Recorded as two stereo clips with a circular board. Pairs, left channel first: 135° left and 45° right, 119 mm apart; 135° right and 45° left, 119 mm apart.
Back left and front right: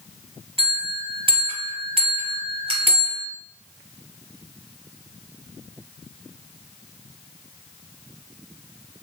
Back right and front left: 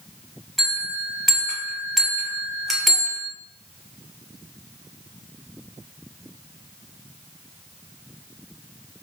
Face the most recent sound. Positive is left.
turn(degrees=-45)